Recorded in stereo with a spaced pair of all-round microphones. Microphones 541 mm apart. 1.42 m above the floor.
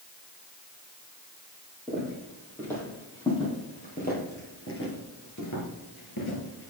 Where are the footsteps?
Centre (ahead or behind), 3.5 m; by 6.7 s 45° left (ahead or behind), 2.0 m.